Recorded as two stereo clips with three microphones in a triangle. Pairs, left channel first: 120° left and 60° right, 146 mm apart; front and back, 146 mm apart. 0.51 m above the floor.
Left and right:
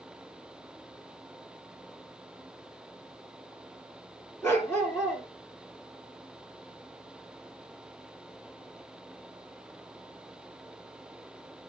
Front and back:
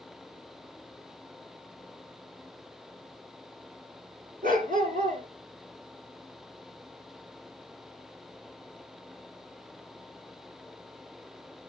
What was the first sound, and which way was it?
A dog barking, 165° right.